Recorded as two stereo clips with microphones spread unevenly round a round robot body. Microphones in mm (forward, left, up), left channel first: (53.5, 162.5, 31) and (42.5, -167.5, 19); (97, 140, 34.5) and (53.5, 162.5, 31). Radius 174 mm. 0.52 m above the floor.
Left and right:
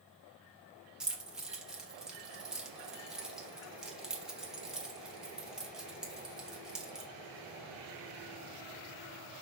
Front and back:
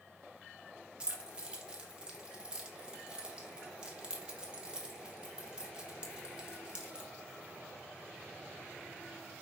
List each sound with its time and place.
1.0 s keys jangling: 175° right, 0.7 m